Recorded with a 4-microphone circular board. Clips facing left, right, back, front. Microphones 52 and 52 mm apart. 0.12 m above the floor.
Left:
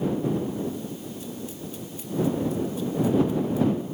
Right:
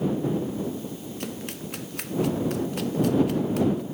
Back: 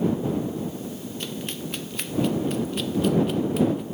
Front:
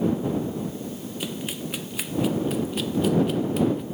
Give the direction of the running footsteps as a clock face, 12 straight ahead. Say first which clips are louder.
Right 1 dB, front 2 dB; 3 o'clock.